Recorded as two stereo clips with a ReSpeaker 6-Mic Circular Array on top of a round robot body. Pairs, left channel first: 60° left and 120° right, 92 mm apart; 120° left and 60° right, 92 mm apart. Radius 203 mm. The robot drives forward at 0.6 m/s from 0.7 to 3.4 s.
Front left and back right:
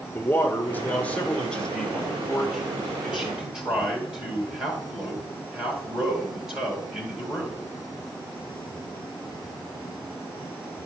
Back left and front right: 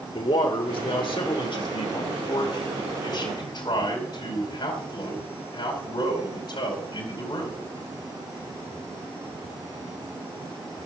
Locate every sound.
0.1 s a man speaking: 125° left, 1.4 m; by 7.6 s 160° left, 2.5 m